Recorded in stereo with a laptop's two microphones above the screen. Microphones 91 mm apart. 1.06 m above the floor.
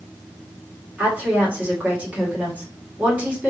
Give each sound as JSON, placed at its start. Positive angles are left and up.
{"t": 1.0, "sound": "a woman speaking", "side_deg": -20, "distance_m": 1.8}